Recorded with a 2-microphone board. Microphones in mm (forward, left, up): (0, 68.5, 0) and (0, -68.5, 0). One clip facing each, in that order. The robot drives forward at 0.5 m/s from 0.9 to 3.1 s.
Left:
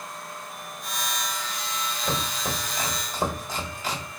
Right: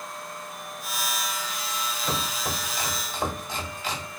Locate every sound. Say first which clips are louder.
2.0 s chopping: left 2 dB; 30° left (ahead or behind), 1.8 m; by 4.1 s 45° left (ahead or behind), 1.3 m